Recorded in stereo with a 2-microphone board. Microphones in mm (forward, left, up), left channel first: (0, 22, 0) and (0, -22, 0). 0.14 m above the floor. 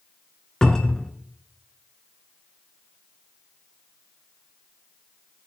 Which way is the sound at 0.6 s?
15° left (ahead or behind).